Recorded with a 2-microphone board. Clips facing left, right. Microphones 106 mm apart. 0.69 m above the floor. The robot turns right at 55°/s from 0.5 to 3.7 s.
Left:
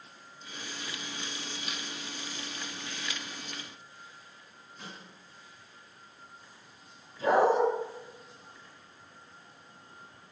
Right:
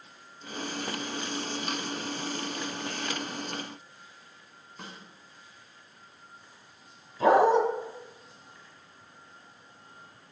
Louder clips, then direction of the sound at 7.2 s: Right 4 dB; 85° right.